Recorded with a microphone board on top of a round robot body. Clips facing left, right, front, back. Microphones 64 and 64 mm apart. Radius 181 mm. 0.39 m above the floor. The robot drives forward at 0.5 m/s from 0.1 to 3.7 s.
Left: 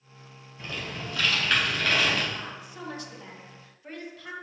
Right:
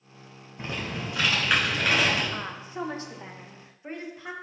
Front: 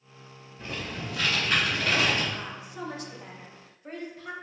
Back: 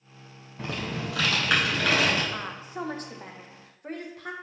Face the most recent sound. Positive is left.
turn(degrees=-155)